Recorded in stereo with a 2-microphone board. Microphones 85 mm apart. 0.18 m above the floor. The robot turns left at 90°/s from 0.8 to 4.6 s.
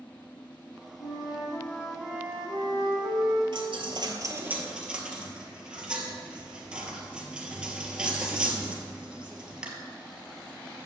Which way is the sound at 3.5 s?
65° right (ahead or behind).